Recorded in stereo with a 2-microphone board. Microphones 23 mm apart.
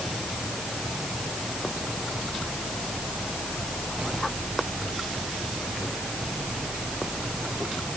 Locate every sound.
Only background noise.